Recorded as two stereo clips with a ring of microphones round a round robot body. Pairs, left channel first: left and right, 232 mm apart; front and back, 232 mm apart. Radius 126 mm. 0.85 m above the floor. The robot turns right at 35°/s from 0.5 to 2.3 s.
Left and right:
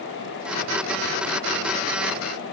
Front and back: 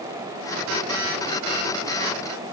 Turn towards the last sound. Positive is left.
No sound to turn to.